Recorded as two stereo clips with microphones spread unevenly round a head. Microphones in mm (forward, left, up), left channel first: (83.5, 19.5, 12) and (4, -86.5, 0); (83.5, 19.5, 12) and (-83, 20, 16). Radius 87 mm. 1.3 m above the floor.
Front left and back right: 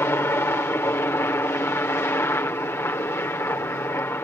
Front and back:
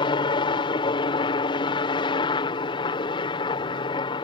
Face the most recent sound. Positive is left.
turn(degrees=0)